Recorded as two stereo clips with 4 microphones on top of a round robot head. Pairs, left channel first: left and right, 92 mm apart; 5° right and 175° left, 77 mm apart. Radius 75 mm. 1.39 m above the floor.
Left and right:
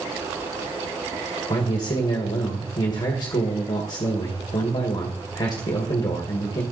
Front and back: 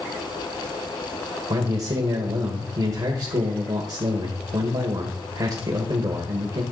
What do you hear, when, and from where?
1.5 s a man speaking: 135° left, 1.5 m